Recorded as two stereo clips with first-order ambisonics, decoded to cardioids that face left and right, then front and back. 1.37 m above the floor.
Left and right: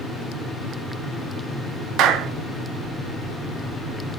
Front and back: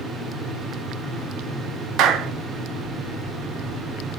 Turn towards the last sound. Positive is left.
turn(degrees=-135)